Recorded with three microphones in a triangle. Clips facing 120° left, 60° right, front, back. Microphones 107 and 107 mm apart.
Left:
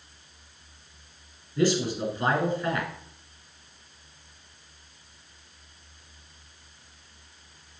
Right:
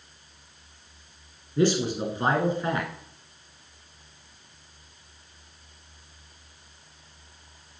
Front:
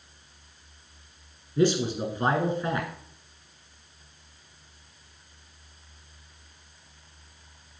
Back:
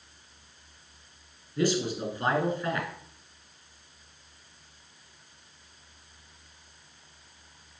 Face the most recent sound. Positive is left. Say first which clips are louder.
# right 1 dB, front 4 dB
turn(degrees=-30)